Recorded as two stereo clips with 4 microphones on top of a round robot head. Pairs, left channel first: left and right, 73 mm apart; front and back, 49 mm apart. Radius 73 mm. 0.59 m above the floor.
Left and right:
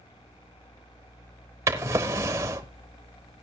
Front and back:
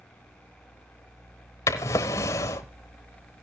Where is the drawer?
35° right, 0.8 m.